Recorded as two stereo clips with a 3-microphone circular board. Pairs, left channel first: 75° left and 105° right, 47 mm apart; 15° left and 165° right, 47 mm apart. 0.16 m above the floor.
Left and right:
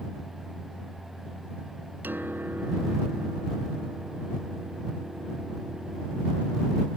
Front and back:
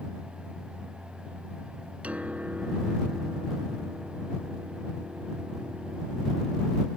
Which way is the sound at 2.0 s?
115° right.